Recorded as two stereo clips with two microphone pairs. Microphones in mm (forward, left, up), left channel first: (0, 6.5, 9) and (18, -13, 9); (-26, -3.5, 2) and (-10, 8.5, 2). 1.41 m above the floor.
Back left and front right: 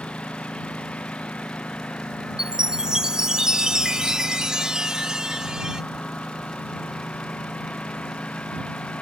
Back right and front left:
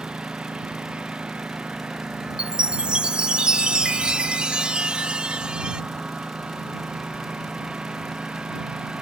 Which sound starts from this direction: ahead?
A chime, at 2.4 s.